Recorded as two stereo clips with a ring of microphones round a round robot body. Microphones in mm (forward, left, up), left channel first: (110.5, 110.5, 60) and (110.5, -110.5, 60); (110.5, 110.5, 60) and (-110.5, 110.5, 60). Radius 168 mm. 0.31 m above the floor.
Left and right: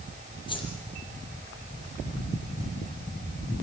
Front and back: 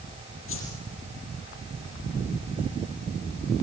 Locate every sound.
0.5 s a whoosh: 20° left, 6.5 m